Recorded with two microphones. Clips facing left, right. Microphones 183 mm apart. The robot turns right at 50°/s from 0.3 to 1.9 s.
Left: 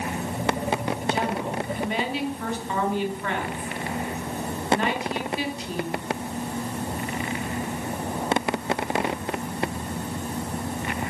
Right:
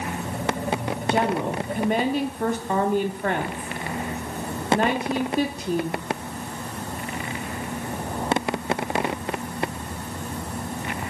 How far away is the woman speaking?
About 1.4 m.